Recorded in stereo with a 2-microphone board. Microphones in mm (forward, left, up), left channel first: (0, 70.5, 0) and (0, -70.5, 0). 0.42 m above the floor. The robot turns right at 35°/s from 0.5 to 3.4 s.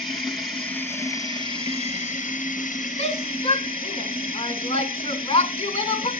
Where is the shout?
50° left (ahead or behind), 2 m; by 6.1 s 45° left (ahead or behind), 2 m.